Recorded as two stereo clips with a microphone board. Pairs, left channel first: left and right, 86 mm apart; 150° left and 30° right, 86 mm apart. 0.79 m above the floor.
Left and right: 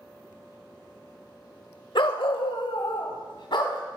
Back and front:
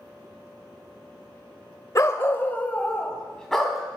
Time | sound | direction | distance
1.9 | a dog barking | 100° left | 0.9 m